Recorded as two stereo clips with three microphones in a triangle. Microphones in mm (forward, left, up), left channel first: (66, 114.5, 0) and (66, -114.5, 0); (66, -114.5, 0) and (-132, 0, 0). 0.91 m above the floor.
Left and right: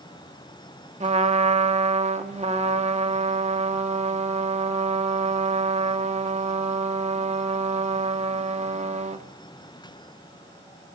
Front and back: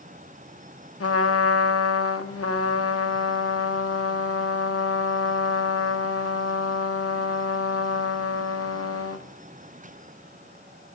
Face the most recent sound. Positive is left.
turn(degrees=-25)